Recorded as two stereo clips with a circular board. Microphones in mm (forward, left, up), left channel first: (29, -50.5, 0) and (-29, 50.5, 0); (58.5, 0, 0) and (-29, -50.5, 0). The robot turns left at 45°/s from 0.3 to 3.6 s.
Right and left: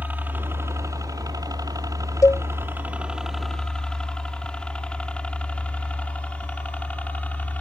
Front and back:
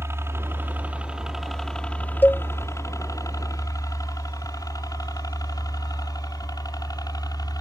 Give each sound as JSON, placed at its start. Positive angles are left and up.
{"t": 0.0, "sound": "a helicopter", "azimuth_deg": 180}
{"t": 2.2, "sound": "a cowbell", "azimuth_deg": -25}